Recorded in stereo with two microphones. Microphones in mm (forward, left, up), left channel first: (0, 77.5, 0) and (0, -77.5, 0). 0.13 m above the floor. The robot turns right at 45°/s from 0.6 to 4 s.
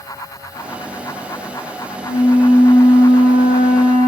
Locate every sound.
2.0 s a flute: 170° right, 1.7 m; by 4.1 s 80° right, 1.7 m